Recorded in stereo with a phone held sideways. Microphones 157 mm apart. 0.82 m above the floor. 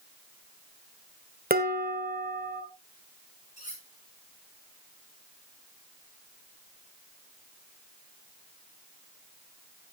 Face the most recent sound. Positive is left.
turn(degrees=50)  # may be behind; listen again after turning